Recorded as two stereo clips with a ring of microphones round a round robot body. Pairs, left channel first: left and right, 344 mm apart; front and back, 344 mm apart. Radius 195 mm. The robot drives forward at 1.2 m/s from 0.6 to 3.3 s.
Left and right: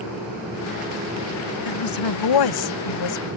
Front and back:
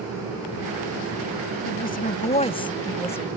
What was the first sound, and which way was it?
A woman speaking, 65° left.